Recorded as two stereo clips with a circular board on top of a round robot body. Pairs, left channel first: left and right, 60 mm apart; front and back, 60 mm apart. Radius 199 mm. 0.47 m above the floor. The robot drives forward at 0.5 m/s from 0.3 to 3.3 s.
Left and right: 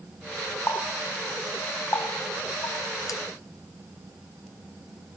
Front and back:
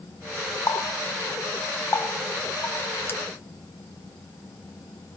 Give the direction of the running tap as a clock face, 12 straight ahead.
11 o'clock.